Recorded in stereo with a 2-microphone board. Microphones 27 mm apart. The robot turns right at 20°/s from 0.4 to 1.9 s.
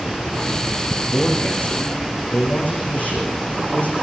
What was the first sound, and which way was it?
A man speaking, 75° left (ahead or behind).